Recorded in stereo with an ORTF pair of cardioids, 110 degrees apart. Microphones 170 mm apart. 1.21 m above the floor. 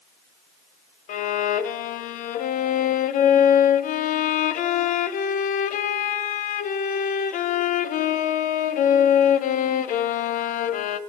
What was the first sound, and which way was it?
A violin, 50° left.